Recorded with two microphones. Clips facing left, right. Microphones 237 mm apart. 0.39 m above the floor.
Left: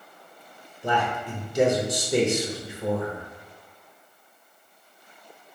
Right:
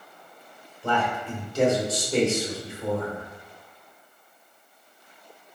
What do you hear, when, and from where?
0.8 s a man speaking: 15° left (ahead or behind), 0.9 m